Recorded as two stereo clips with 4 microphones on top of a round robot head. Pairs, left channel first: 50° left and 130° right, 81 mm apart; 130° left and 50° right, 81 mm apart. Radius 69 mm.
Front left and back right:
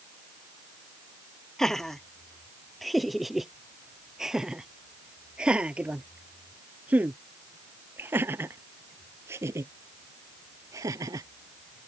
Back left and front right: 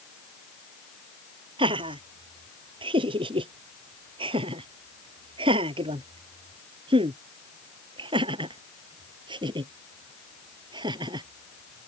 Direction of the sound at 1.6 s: 35° right.